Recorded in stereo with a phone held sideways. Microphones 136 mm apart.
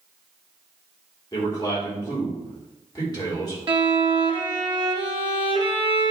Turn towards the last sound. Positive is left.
turn(degrees=-40)  # may be behind; listen again after turning